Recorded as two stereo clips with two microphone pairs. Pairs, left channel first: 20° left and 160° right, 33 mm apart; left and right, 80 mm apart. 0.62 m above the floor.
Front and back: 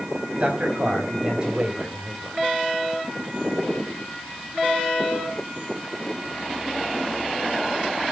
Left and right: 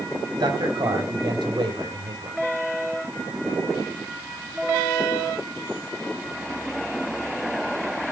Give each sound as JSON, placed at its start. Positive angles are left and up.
{"t": 0.4, "sound": "a man speaking", "azimuth_deg": -115, "distance_m": 5.0}